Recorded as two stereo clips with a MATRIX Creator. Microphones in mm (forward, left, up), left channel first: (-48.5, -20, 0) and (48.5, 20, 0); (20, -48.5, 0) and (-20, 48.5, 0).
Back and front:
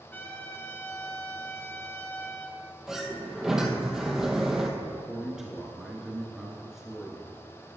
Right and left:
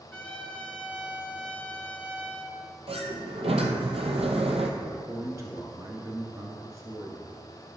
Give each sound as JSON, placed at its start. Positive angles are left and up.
{"t": 0.1, "sound": "a trumpet", "azimuth_deg": -130, "distance_m": 0.9}
{"t": 2.9, "sound": "a sliding door", "azimuth_deg": 110, "distance_m": 0.9}
{"t": 4.8, "sound": "a man speaking", "azimuth_deg": 105, "distance_m": 1.2}